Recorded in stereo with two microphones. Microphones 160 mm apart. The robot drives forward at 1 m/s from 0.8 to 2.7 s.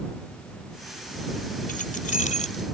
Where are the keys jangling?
60° left (ahead or behind); by 2.6 s 45° left (ahead or behind).